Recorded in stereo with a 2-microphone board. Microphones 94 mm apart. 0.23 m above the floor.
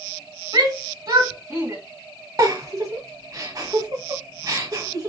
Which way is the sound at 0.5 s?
45° right (ahead or behind).